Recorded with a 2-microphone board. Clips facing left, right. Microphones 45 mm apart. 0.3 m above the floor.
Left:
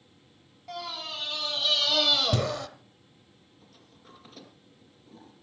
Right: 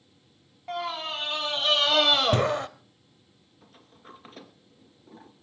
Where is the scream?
35° right (ahead or behind), 1.9 m; by 2.7 s 30° right (ahead or behind), 0.9 m.